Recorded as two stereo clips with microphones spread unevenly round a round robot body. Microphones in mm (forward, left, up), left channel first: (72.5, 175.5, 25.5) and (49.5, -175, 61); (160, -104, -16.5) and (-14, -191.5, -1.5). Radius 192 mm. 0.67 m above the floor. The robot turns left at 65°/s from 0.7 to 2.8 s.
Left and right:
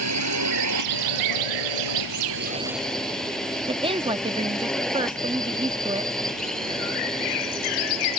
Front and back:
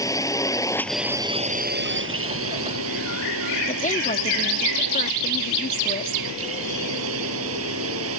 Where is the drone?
50° right; by 8.2 s 175° left.